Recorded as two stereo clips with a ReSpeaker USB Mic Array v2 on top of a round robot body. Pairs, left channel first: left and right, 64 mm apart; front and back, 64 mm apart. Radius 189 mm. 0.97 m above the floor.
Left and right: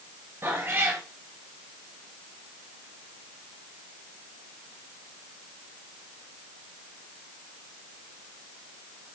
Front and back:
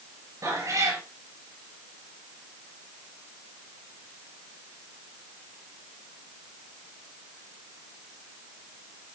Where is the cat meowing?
140° right, 3.5 m.